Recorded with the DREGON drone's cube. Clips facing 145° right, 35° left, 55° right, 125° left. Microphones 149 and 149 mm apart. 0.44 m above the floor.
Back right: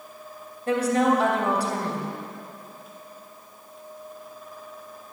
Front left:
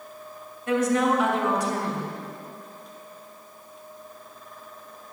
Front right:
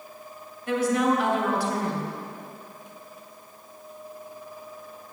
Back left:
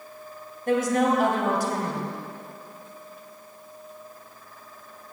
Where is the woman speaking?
165° left, 2.5 m.